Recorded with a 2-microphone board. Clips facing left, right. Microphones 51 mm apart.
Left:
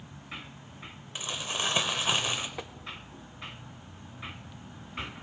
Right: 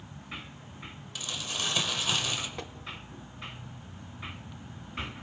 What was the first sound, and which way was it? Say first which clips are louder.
Crumpling: left 2 dB; 30° left (ahead or behind).